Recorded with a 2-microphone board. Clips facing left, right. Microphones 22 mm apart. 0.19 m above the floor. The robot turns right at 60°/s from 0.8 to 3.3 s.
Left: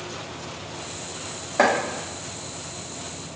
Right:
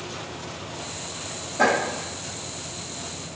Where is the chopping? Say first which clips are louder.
Left 1 dB; 85° left, 1.7 m; by 1.7 s 90° left, 1.7 m.